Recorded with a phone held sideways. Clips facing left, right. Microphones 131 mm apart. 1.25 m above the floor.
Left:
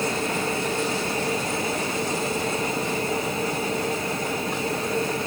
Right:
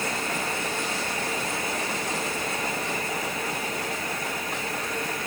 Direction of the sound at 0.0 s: 25° left (ahead or behind).